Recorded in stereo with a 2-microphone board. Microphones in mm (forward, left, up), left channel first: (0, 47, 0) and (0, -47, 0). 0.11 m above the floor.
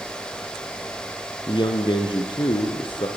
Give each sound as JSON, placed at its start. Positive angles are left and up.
{"t": 1.5, "sound": "a man speaking", "side_deg": 55, "distance_m": 2.5}